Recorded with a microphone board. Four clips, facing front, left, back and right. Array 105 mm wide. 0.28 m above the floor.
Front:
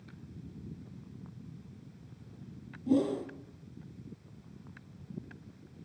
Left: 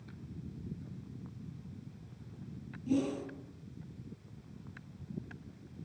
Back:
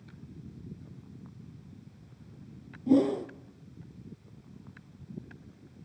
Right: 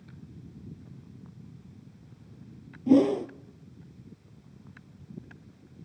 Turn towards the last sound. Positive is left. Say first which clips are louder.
# right 12 dB, back 4 dB
turn(degrees=-110)